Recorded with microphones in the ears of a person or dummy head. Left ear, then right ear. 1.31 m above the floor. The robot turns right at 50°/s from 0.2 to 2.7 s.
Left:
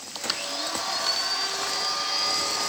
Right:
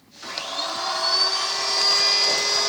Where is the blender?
165° right, 1.4 m; by 2.7 s 45° right, 1.4 m.